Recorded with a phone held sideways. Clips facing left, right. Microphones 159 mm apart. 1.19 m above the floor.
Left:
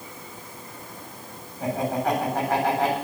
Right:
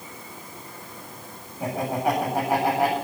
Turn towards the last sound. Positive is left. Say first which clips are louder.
# even
turn(degrees=-10)  # may be behind; listen again after turning